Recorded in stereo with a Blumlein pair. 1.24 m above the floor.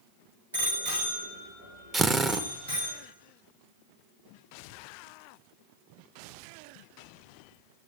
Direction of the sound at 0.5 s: 70° right.